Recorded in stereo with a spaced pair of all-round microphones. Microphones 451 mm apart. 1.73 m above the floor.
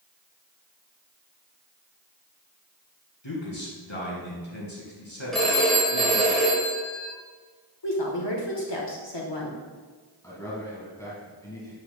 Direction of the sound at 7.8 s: 65° left (ahead or behind).